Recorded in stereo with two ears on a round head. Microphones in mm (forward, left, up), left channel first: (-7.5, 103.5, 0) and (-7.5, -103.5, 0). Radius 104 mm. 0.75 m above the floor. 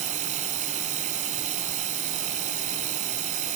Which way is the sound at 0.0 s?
35° right (ahead or behind).